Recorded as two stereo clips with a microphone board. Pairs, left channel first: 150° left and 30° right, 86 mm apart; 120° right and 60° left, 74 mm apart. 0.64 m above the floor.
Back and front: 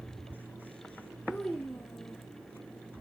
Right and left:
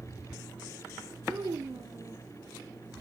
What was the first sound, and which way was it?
A child speaking, 75° left.